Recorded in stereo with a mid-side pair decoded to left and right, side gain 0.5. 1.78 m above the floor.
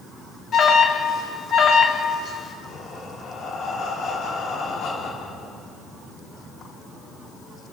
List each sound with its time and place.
0.5 s an alarm: 50° left, 1.8 m
2.6 s breathing: 60° left, 2.5 m